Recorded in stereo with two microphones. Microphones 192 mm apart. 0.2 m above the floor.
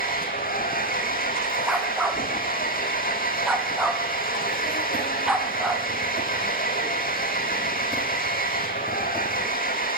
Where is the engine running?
50° left (ahead or behind), 3 m.